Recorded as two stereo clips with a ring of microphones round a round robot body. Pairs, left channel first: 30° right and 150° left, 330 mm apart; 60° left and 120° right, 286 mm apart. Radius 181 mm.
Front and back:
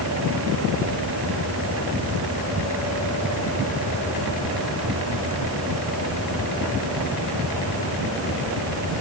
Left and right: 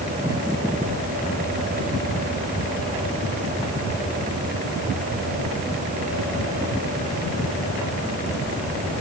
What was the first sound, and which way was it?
Only background noise.